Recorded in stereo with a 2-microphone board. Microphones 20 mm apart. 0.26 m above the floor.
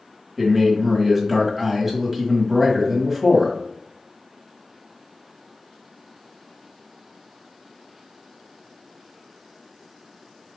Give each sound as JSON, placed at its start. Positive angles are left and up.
{"t": 0.4, "sound": "a man speaking", "side_deg": -15, "distance_m": 1.2}